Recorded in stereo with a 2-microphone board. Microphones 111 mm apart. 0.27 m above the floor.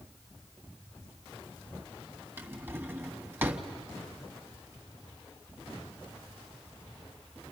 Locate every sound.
2.4 s a drawer: 20° right (ahead or behind), 1.2 m